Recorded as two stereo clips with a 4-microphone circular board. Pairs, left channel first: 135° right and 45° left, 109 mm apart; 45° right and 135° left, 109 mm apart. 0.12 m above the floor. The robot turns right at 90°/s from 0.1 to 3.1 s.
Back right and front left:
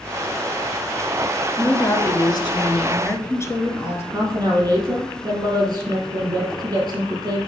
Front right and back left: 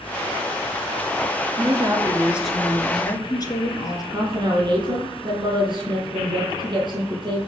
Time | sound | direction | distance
1.6 | a woman speaking | 140° left | 1.7 m
4.1 | a woman speaking | 100° left | 4 m